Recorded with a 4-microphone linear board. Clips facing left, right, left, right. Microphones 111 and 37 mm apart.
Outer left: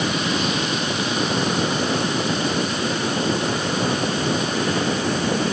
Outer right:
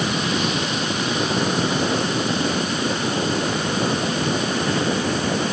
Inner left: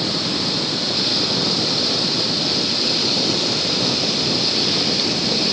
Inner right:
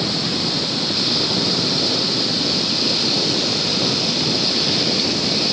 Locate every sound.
Only background noise.